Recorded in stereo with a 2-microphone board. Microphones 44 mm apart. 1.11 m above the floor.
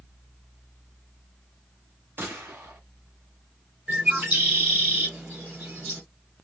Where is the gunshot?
55° right (ahead or behind), 1.4 m.